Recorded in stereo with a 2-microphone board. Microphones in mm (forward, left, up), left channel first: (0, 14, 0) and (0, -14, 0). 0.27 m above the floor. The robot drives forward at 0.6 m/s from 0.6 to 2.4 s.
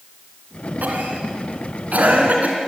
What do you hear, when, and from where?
0.8 s a cough: 70° right (ahead or behind), 3 m; by 2.6 s 65° right (ahead or behind), 3 m